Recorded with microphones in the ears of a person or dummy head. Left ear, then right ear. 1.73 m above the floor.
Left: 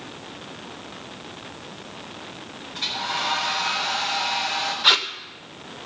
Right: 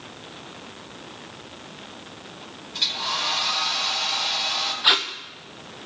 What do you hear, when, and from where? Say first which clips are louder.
2.7 s a hair dryer: right 2 dB; 50° right (ahead or behind), 4.5 m
4.8 s tape being pulled: left 2 dB; centre (ahead or behind), 0.7 m